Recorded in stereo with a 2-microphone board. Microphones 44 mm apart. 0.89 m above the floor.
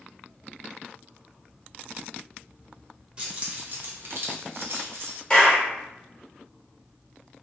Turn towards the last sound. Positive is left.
turn(degrees=20)  # may be behind; listen again after turning